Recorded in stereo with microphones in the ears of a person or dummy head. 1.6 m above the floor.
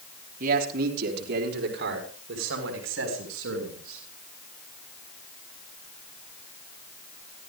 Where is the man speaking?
55° right (ahead or behind), 4.5 m; by 4.0 s 85° right, 7.5 m.